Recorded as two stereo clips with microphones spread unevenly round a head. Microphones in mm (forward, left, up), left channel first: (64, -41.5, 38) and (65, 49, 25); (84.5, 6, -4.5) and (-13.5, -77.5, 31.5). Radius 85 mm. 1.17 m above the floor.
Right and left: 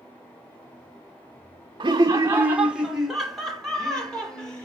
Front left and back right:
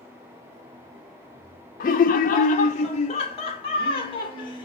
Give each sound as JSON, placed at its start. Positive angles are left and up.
{"t": 1.8, "sound": "laughter", "azimuth_deg": 50, "distance_m": 0.5}